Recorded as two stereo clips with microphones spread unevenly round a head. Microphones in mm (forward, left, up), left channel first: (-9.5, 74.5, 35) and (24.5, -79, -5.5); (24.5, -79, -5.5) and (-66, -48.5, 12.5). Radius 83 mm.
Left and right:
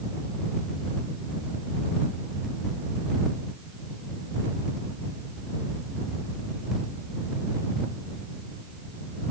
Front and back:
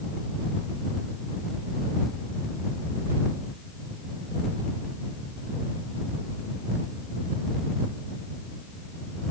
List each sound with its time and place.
Only background noise.